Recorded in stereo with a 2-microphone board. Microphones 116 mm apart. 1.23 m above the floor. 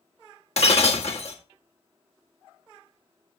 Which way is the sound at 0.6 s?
65° left (ahead or behind).